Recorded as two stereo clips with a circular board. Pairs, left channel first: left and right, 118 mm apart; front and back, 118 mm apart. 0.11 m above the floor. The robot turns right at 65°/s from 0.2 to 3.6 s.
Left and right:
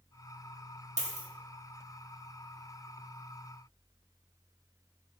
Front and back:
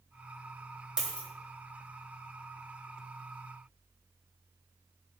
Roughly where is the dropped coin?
Right.